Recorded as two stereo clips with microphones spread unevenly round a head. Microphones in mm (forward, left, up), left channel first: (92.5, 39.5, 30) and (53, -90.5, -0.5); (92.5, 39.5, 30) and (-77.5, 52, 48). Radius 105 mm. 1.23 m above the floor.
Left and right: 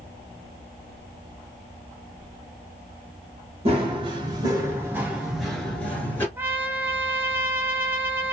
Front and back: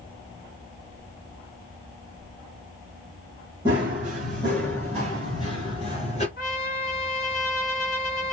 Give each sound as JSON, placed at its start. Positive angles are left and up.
{"t": 3.6, "sound": "running footsteps", "azimuth_deg": -130, "distance_m": 1.3}
{"t": 6.4, "sound": "a trumpet", "azimuth_deg": -35, "distance_m": 0.8}